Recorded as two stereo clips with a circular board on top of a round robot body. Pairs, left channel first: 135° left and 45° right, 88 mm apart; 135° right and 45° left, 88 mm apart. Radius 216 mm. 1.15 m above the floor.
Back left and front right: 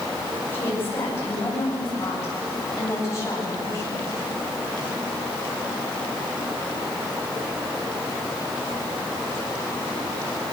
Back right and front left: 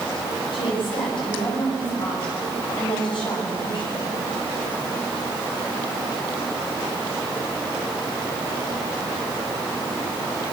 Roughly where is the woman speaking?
Behind.